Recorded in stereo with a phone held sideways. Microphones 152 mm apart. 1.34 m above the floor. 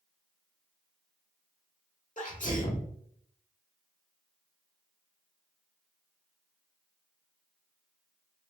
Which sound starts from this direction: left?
A sneeze, at 2.2 s.